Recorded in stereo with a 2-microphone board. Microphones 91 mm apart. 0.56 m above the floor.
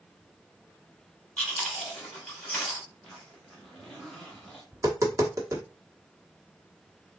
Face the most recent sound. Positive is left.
turn(degrees=-35)  # may be behind; listen again after turning